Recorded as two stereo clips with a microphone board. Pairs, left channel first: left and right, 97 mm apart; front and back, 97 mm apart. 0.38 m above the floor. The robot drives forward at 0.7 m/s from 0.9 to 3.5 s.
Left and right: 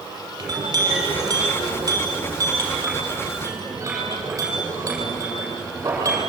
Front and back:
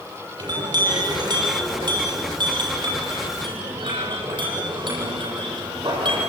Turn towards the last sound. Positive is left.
turn(degrees=-145)